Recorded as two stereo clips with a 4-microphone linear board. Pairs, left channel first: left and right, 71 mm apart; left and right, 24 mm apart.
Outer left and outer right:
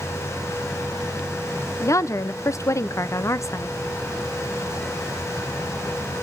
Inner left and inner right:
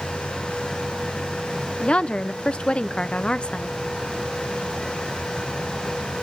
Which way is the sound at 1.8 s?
45° left (ahead or behind).